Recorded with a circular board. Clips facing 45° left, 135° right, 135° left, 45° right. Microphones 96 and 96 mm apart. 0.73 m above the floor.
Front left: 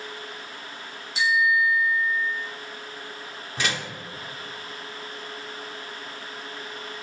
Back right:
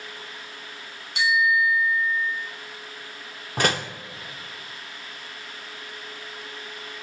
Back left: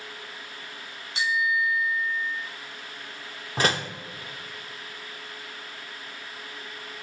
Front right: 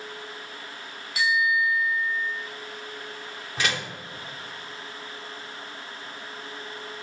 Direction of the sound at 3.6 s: 175° right.